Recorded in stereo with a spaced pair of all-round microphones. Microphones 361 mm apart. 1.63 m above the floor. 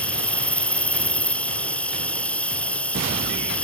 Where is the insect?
5° left (ahead or behind).